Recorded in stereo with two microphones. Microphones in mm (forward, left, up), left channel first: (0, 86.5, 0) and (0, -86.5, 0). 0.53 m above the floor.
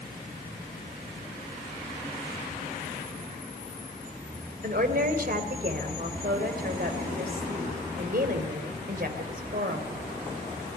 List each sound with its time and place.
4.6 s a woman speaking: 60° right (ahead or behind), 2.5 m